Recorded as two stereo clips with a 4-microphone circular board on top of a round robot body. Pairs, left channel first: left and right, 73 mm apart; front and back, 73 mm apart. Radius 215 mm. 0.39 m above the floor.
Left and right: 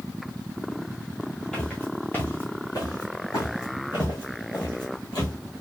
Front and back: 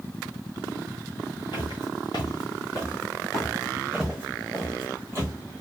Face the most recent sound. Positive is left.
turn(degrees=125)